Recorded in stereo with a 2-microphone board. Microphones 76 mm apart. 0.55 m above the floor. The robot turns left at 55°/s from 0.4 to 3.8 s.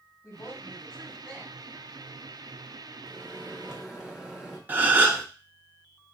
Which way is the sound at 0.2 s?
45° left.